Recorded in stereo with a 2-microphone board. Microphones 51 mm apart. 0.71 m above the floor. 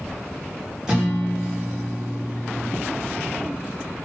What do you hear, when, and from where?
0.9 s a guitar: 10° right (ahead or behind), 0.9 m